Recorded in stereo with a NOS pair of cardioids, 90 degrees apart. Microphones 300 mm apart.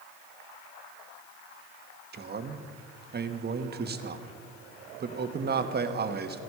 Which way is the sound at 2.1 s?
35° right.